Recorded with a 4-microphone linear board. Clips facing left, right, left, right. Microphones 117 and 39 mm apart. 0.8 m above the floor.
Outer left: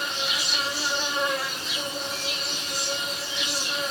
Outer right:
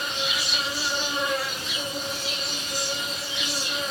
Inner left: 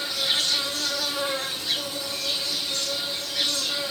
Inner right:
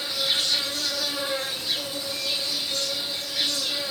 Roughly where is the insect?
Left.